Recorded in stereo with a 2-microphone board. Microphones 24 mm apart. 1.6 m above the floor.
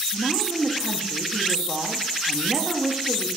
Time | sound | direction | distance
0.1 | a woman speaking | 30° right (ahead or behind) | 0.6 m